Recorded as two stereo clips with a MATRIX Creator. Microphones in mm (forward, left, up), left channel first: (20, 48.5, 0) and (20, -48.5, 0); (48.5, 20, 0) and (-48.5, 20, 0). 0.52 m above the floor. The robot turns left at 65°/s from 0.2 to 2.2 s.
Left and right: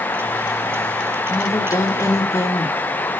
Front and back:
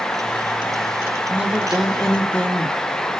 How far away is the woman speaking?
About 1.2 m.